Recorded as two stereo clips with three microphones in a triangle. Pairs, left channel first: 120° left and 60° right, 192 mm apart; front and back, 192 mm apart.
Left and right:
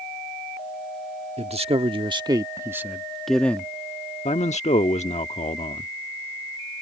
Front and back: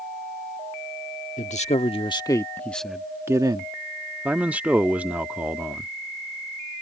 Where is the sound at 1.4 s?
25° right; by 3.7 s 175° right.